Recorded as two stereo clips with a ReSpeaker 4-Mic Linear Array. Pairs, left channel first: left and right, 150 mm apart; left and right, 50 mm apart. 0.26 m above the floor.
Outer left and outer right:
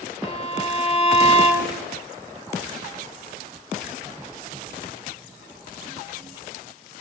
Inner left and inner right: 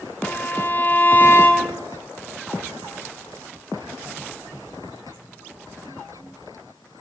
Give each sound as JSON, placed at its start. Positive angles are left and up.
{"t": 0.2, "sound": "a violin", "side_deg": 40, "distance_m": 2.0}